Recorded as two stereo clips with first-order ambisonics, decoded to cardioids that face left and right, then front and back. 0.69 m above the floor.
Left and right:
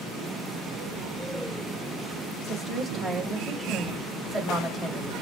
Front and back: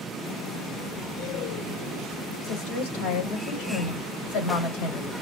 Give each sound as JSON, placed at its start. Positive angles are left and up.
{"t": 2.4, "sound": "a woman speaking", "azimuth_deg": 0, "distance_m": 3.5}